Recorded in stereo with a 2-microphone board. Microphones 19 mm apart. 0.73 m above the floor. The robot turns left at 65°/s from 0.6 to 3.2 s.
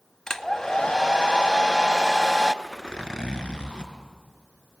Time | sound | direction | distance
0.3 | a hair dryer | 145° left | 0.8 m
2.6 | a zipper | 170° left | 3.5 m